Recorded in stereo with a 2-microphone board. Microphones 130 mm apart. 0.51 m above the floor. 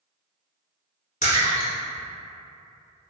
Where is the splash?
75° left (ahead or behind), 1.1 m.